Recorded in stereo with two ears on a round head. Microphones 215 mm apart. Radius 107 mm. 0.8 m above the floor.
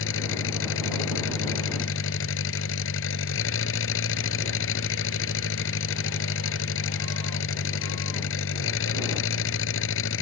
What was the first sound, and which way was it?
An engine running, 55° left (ahead or behind).